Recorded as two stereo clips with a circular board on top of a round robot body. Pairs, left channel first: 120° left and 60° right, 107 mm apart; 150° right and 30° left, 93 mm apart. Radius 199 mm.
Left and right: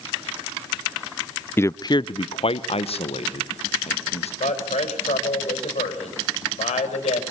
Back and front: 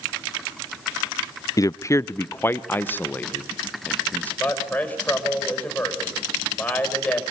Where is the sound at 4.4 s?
135° left, 5 m.